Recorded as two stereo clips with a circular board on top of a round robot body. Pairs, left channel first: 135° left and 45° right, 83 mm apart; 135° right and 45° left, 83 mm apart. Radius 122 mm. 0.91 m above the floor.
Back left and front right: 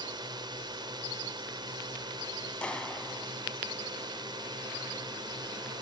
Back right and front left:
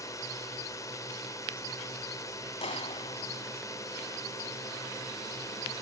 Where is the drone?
80° right.